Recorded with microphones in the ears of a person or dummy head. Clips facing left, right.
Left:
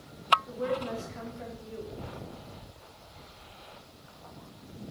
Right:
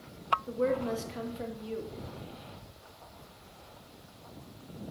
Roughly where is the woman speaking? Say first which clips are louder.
Right 3 dB; right.